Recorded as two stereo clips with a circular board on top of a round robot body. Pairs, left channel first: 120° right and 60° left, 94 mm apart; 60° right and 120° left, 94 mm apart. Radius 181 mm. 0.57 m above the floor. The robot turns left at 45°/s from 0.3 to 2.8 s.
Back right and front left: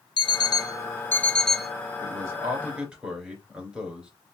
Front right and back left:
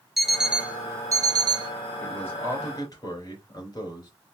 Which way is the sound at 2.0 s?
20° left.